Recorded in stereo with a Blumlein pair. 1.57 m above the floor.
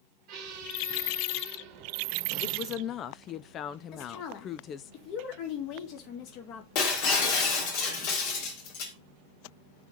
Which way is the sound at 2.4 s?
30° left.